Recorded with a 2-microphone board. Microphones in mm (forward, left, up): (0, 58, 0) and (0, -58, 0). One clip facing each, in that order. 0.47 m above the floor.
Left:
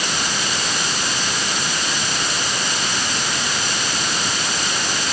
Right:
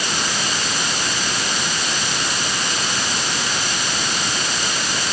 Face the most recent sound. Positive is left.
No sound to turn to.